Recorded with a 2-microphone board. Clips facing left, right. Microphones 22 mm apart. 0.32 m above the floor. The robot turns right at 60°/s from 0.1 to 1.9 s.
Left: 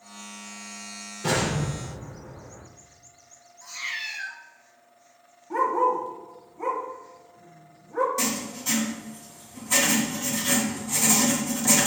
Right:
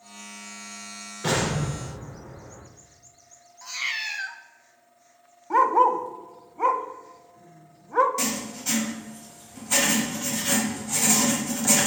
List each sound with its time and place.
1.2 s an explosion: 30° right (ahead or behind), 4 m; by 2.6 s 70° right (ahead or behind), 4 m
3.6 s a cat meowing: 50° right (ahead or behind), 0.9 m
5.5 s a dog barking: 60° right (ahead or behind), 0.7 m
8.2 s writing: 15° right (ahead or behind), 2 m